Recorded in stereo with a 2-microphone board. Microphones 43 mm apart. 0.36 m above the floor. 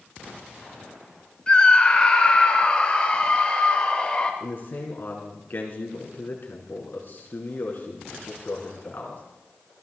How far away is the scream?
About 1.6 m.